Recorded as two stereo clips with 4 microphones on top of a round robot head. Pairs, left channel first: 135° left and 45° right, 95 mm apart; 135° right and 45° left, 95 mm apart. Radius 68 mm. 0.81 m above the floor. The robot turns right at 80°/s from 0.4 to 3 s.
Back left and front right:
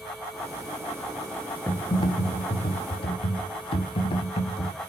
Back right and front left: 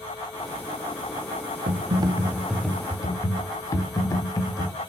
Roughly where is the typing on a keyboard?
Ahead left.